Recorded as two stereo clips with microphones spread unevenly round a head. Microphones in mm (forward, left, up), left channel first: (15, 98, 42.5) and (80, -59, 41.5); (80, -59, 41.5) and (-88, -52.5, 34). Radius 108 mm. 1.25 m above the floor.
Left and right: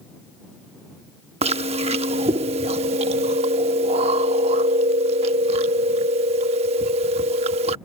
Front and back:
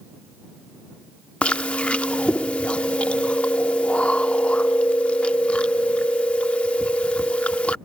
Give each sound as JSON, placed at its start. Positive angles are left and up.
{"t": 1.4, "sound": "chewing", "azimuth_deg": -75}